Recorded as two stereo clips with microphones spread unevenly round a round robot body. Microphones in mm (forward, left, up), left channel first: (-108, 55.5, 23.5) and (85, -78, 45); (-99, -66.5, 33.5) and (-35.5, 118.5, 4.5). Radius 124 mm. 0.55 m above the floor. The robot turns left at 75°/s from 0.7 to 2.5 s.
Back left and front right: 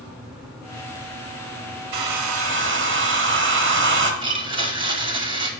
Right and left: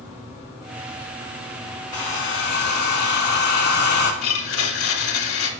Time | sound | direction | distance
1.9 | a hair dryer | 30° right | 1.0 m
4.2 | a blender | 105° right | 0.8 m